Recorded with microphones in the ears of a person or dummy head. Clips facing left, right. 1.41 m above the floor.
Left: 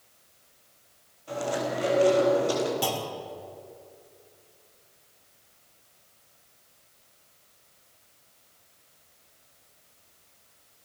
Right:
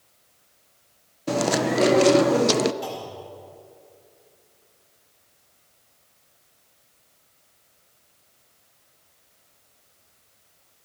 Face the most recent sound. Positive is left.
turn(degrees=65)  # may be behind; listen again after turning